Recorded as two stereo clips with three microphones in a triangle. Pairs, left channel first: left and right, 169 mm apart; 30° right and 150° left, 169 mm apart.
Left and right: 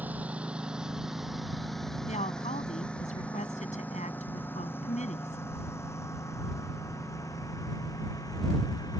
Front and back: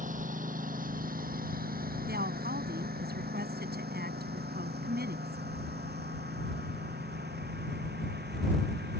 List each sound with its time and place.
0.0 s a lawn mower: 170° right; by 9.0 s 160° left
2.1 s a woman speaking: 135° left